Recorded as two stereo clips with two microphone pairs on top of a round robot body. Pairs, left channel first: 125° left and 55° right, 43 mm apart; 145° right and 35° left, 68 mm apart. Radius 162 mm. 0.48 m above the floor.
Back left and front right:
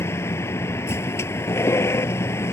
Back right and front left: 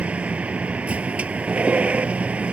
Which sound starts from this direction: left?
A vehicle, at 0.0 s.